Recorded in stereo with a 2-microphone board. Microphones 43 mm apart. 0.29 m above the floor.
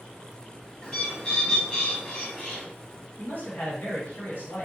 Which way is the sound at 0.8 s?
25° left (ahead or behind).